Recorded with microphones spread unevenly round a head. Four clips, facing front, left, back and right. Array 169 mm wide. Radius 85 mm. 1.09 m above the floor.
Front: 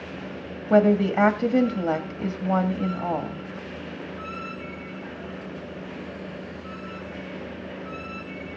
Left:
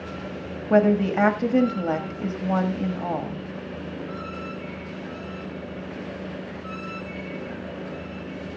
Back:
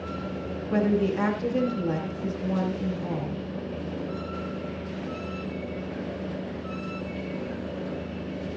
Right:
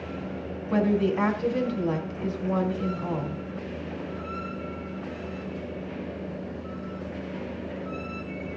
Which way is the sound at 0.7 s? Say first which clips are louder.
Left 5 dB, front 6 dB; 45° left.